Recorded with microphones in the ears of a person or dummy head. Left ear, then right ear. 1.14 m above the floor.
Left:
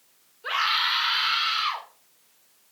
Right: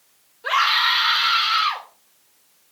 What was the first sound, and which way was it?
A scream, 10° right (ahead or behind).